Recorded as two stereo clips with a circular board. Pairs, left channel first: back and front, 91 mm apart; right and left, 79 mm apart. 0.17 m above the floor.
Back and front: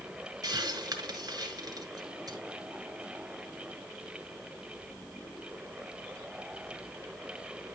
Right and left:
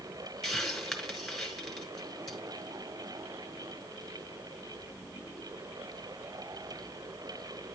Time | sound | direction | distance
0.4 | a hiss | straight ahead | 2.5 m